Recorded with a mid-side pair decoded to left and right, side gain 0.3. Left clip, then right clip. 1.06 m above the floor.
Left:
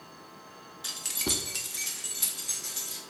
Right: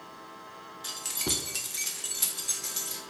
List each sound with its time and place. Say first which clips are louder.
0.8 s keys jangling: left 1 dB; 30° left, 0.5 m; by 3.0 s 55° right, 1.1 m